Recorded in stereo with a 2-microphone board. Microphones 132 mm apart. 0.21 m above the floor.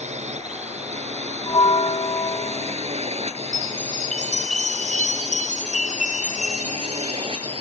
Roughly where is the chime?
Left.